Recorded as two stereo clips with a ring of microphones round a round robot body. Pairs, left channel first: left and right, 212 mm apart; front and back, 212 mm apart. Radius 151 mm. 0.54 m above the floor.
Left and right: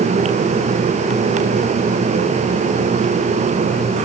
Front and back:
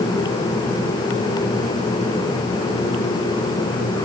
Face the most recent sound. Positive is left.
No sound to turn to.